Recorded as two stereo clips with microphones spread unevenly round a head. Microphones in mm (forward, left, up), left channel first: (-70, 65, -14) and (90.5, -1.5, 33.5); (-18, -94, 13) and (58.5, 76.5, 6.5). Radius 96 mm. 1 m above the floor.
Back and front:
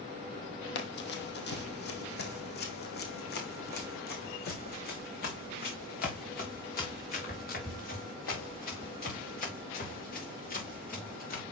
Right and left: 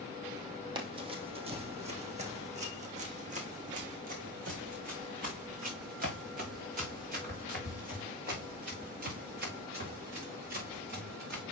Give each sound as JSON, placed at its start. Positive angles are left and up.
{"t": 0.8, "sound": "running footsteps", "azimuth_deg": 130, "distance_m": 1.6}